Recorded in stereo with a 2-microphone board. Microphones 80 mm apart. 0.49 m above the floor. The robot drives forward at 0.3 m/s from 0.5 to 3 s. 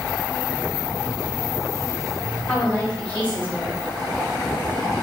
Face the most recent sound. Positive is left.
turn(degrees=20)  # may be behind; listen again after turning